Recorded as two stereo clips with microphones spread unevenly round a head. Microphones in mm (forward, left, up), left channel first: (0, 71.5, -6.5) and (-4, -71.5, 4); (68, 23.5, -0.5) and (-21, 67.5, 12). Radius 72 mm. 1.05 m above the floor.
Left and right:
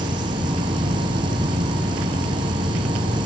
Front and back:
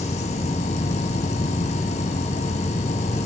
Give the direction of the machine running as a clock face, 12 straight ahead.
1 o'clock.